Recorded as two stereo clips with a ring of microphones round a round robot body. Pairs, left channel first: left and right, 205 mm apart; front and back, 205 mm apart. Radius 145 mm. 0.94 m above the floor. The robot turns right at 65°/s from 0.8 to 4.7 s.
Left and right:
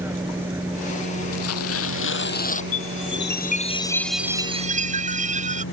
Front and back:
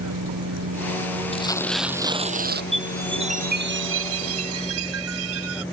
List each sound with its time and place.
0.0 s a vehicle: 170° right; by 5.7 s 85° left
1.3 s tearing paper: 60° left; by 2.6 s 145° left
2.7 s a chime: 90° left; by 5.6 s 145° right